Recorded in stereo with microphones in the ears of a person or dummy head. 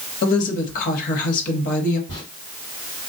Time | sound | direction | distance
0.2 | a woman speaking | 50° left (ahead or behind) | 0.9 m
2.1 | a zipper | 35° left (ahead or behind) | 2 m